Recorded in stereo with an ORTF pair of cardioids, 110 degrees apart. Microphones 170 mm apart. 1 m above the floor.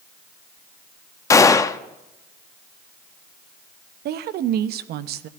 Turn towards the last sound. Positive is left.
turn(degrees=-70)